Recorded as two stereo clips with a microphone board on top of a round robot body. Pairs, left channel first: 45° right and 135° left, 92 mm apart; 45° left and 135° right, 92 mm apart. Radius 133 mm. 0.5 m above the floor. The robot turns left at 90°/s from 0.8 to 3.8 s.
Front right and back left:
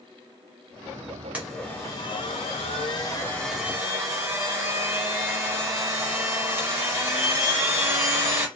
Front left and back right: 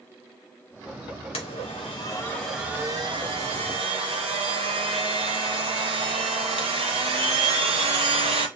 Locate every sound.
1.3 s a blender: 60° left, 0.6 m; by 8.5 s 160° right, 0.6 m